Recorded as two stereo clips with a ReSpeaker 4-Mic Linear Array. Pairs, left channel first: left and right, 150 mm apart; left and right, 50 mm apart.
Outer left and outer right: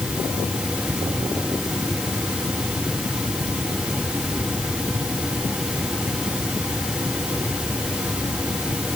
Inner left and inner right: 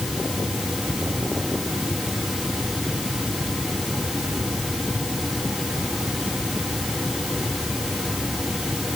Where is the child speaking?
No child speaking in this recording.